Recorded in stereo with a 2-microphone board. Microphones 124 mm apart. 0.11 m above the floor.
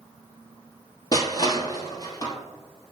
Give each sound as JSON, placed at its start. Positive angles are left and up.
{"t": 1.1, "sound": "crushing", "side_deg": 30, "distance_m": 0.8}